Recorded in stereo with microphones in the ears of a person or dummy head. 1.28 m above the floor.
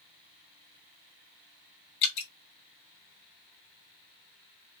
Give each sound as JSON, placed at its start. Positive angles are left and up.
{"t": 2.0, "sound": "dripping", "side_deg": 55, "distance_m": 1.3}